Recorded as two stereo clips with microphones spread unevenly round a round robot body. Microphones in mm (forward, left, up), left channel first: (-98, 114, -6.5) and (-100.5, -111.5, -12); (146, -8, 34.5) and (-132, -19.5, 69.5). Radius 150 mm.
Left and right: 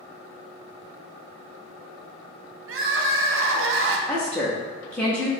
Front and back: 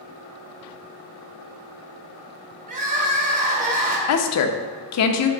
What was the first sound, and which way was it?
Crying, 120° right.